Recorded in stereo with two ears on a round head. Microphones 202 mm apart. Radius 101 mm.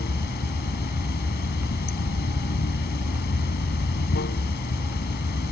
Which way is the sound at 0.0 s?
50° left (ahead or behind).